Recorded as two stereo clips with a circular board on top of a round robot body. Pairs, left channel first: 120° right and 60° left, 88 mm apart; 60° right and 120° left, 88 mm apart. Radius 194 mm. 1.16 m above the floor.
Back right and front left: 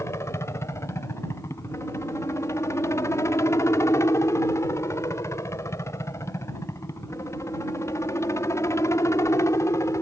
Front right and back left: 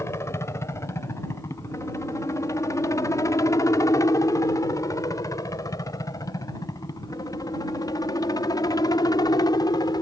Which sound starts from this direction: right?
A helicopter, at 0.0 s.